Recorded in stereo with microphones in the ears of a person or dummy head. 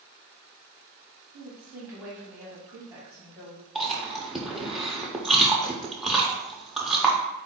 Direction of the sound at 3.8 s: 5° right (ahead or behind).